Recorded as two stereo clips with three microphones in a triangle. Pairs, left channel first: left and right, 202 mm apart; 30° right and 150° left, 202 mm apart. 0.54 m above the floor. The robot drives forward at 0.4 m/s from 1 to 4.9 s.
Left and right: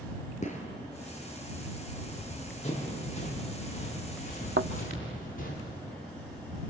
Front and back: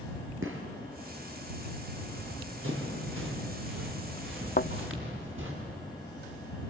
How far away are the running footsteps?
About 5.5 m.